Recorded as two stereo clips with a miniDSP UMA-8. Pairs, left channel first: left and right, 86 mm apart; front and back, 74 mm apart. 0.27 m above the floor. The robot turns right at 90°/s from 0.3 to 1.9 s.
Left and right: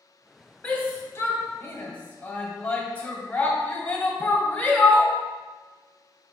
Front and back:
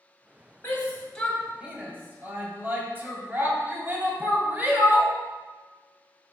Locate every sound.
0.6 s a shout: 30° left, 1.6 m; by 5.1 s 145° left, 1.6 m